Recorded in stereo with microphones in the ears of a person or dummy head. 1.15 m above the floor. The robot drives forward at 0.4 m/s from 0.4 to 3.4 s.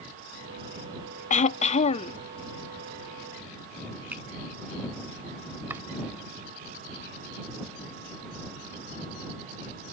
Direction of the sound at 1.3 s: 40° left (ahead or behind).